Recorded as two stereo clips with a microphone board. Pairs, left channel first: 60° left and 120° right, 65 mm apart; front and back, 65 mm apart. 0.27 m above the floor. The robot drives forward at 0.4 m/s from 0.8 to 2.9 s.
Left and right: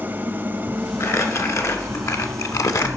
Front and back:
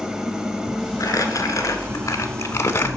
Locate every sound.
0.0 s an engine running: 105° right, 0.8 m; by 3.0 s 155° right, 1.3 m
1.0 s crumpling: 25° left, 1.4 m; by 2.9 s 45° left, 0.8 m